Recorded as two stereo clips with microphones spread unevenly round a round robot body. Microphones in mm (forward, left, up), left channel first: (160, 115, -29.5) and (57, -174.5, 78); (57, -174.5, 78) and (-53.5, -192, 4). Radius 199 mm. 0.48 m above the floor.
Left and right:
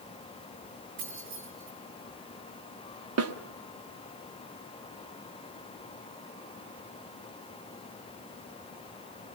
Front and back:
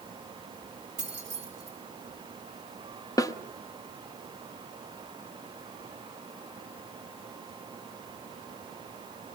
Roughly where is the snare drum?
Right.